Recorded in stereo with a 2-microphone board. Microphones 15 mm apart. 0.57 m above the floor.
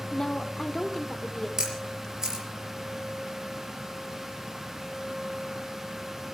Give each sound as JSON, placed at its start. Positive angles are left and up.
{"t": 0.1, "sound": "a woman speaking", "side_deg": 40, "distance_m": 1.4}
{"t": 1.6, "sound": "a camera shutter", "side_deg": -30, "distance_m": 5.0}